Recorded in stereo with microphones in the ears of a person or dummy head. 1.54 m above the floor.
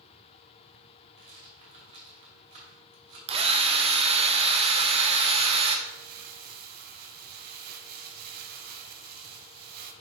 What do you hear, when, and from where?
1.2 s a rattle: 40° right (ahead or behind), 2.5 m
3.3 s a drill: 35° right (ahead or behind), 0.9 m
5.9 s crumpling: 50° right (ahead or behind), 1.4 m